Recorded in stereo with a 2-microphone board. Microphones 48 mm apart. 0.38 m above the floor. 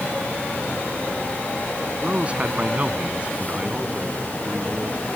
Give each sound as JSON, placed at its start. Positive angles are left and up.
{"t": 2.0, "sound": "a man speaking", "side_deg": -30}